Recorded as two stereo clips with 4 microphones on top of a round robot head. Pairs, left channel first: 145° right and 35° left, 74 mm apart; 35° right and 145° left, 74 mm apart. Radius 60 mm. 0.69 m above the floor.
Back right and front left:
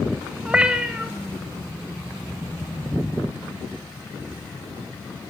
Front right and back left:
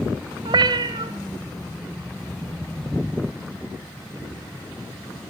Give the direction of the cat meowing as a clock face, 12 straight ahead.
8 o'clock.